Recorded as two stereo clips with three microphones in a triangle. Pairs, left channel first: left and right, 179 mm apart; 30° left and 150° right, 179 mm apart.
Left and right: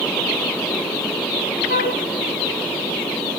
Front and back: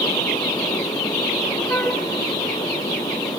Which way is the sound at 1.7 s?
105° left.